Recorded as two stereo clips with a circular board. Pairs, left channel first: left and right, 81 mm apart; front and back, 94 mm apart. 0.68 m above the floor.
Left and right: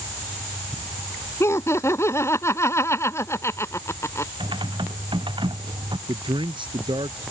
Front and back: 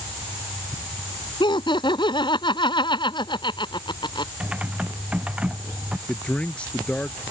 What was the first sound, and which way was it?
Laughter, 35° left.